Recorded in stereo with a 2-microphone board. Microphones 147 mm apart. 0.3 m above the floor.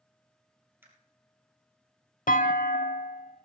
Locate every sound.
0.8 s a camera shutter: 15° right (ahead or behind), 3 m
2.3 s a clunk: 70° left (ahead or behind), 0.5 m